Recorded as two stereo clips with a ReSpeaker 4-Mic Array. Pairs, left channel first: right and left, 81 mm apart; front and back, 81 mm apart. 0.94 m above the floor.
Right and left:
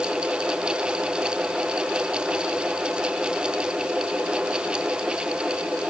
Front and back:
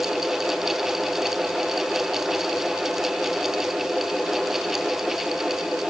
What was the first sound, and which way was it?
Only background noise.